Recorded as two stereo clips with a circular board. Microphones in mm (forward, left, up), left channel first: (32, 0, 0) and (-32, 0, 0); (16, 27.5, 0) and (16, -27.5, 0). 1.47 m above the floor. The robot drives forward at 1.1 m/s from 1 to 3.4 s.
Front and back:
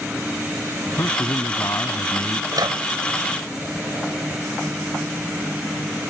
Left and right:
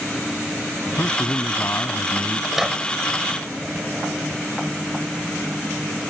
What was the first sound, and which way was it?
A man speaking, 40° left.